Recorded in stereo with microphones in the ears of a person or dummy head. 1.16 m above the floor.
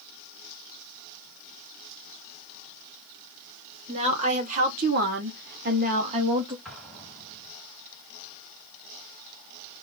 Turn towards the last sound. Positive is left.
turn(degrees=0)  # may be behind; listen again after turning